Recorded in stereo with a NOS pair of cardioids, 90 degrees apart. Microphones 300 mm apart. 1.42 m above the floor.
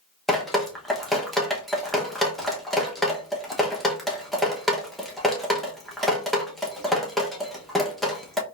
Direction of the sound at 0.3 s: Straight ahead.